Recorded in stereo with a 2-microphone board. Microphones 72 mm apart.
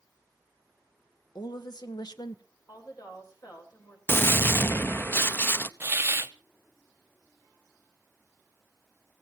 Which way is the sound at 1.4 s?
80° left.